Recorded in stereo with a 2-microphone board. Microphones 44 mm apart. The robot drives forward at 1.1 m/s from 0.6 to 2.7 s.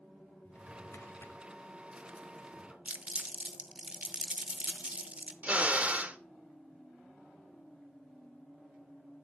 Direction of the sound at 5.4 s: 35° right (ahead or behind).